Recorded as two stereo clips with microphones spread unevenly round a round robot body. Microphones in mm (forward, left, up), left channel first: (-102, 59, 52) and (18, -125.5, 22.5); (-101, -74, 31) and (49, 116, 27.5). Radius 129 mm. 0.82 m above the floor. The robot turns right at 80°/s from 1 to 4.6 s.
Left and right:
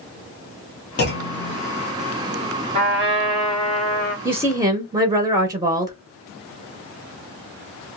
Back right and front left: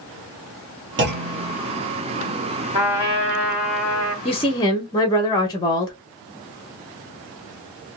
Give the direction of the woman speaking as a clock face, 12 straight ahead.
3 o'clock.